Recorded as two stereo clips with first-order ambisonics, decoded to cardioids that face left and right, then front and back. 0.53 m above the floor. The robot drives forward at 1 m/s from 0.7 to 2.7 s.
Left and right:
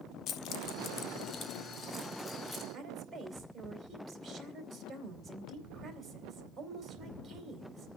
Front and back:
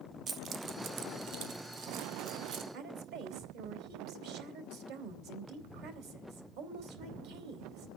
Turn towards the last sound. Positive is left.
turn(degrees=-170)